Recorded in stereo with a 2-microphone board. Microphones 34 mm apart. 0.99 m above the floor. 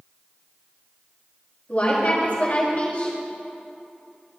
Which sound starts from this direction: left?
A woman speaking, at 1.7 s.